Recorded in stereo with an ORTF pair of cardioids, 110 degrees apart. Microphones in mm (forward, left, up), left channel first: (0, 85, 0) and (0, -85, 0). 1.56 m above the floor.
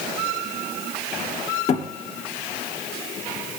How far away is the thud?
About 2.5 m.